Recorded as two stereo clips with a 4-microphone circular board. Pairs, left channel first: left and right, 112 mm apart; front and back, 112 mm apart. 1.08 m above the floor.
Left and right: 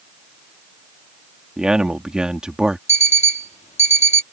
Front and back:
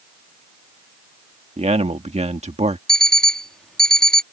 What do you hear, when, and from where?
1.6 s a man speaking: 175° right
2.9 s an alarm clock: 85° left